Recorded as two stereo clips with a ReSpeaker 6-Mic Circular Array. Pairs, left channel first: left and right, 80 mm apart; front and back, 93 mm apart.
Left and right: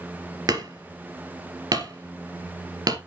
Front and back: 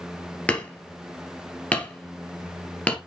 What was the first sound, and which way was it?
Hammering, 70° right.